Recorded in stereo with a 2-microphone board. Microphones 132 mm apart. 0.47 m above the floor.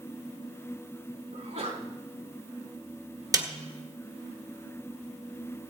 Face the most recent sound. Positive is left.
turn(degrees=-30)  # may be behind; listen again after turning